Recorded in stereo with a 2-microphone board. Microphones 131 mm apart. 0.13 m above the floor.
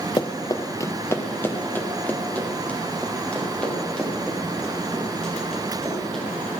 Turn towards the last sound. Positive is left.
turn(degrees=5)  # may be behind; listen again after turning